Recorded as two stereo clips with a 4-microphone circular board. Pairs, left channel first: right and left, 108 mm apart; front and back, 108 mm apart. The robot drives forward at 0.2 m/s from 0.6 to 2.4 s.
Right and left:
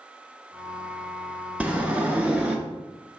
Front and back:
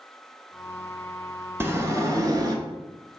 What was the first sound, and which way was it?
A sliding door, 150° left.